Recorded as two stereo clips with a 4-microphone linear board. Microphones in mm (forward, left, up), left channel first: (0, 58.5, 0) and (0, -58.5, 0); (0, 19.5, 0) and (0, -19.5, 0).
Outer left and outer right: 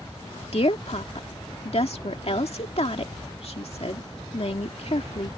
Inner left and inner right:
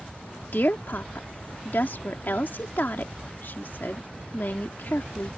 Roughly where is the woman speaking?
Left.